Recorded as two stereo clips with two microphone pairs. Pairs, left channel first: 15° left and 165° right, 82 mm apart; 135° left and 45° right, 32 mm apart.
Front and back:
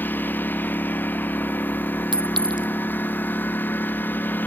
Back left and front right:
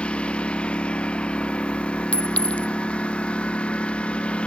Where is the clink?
Straight behind.